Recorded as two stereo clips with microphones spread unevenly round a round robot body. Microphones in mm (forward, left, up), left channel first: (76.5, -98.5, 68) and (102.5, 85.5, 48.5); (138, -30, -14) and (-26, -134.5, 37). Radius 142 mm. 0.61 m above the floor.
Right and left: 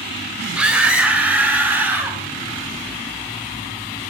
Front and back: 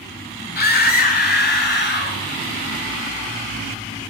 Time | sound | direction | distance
0.6 | a scream | straight ahead | 4 m